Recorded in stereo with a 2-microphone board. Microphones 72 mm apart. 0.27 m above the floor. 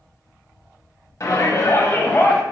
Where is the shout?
40° left (ahead or behind), 1.7 m; by 2.4 s 20° left (ahead or behind), 1.3 m.